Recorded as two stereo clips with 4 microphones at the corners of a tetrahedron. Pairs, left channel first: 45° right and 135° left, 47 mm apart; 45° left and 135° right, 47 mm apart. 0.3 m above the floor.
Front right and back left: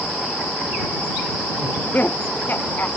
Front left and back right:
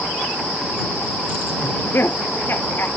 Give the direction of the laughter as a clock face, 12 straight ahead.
12 o'clock.